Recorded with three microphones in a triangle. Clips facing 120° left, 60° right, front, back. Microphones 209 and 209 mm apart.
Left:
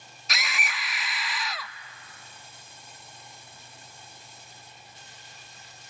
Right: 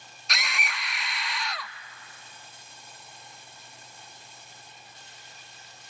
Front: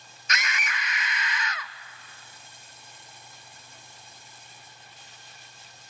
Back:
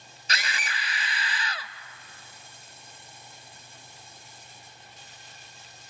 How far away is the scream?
About 0.7 m.